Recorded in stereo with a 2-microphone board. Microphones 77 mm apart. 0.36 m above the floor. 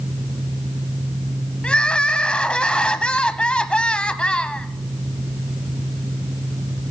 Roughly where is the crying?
Centre.